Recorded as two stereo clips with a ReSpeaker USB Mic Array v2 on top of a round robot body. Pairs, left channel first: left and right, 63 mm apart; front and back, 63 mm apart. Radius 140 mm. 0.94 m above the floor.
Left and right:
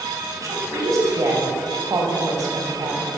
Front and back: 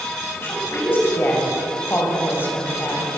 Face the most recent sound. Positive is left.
turn(degrees=-60)